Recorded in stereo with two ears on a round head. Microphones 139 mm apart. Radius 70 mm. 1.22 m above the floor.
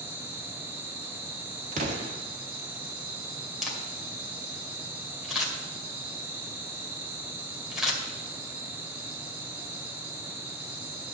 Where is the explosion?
50° right (ahead or behind), 1.6 m.